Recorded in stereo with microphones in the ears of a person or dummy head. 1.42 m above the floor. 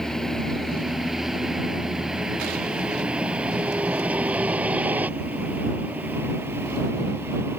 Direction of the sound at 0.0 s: Centre (ahead or behind).